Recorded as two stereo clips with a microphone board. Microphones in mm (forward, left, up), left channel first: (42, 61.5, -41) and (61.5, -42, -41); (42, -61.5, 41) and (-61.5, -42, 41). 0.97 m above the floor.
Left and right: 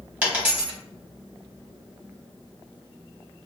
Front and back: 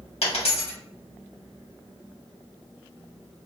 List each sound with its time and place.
0.2 s a dropped coin: 5° right, 1.2 m